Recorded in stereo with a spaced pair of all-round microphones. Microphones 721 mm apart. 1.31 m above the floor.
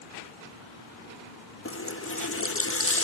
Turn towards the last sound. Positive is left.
turn(degrees=20)  # may be behind; listen again after turning